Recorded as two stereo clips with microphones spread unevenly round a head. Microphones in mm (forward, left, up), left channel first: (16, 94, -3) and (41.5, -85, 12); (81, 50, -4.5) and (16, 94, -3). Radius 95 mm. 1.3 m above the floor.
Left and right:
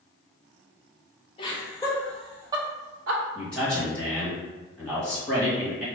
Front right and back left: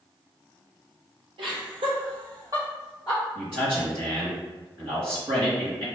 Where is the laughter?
160° left, 1.3 m; by 3.2 s 110° right, 0.8 m.